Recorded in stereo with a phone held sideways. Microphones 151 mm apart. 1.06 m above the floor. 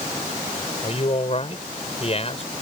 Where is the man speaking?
45° left (ahead or behind).